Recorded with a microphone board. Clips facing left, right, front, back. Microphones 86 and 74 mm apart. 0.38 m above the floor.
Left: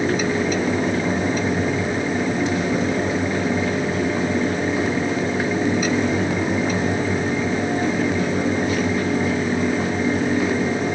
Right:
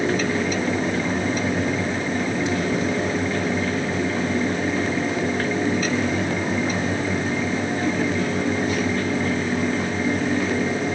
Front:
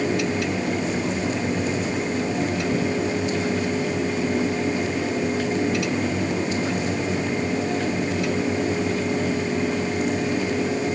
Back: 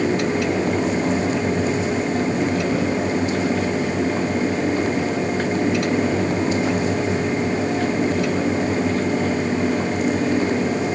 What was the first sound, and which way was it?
Only background noise.